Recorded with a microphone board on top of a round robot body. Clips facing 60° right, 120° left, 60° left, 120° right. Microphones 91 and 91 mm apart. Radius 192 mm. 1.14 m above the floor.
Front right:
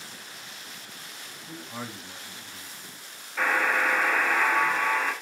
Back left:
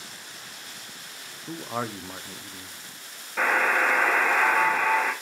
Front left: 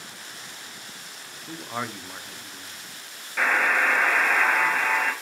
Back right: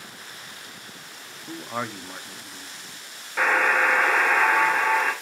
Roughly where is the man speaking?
Behind left.